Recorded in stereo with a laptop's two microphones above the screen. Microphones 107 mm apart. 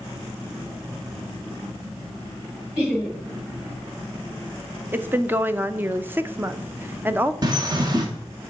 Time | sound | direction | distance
2.8 | laughter | 10° right (ahead or behind) | 3 m
4.9 | a woman speaking | 20° right (ahead or behind) | 0.6 m
7.4 | a bird | 40° right (ahead or behind) | 1.3 m